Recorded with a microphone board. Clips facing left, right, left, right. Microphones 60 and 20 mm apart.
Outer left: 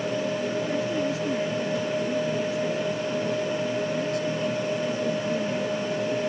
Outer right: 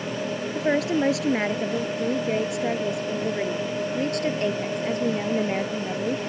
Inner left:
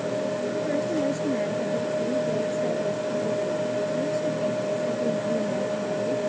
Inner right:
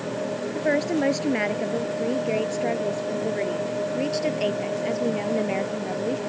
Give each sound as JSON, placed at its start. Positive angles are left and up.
{"t": 0.6, "sound": "a woman speaking", "side_deg": -75}